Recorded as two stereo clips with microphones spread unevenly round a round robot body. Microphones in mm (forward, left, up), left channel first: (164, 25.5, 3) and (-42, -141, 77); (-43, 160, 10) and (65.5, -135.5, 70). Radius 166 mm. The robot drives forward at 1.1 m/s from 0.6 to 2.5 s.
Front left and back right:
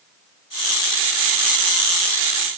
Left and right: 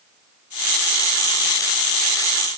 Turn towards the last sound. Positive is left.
No sound to turn to.